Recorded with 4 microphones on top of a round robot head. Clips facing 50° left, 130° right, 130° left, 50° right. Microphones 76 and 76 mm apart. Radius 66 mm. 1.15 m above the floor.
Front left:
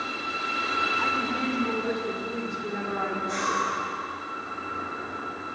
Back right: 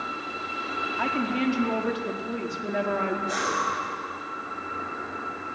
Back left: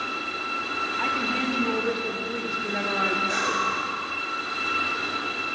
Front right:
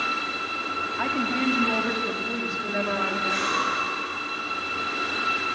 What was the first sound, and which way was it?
A woman speaking, 100° right.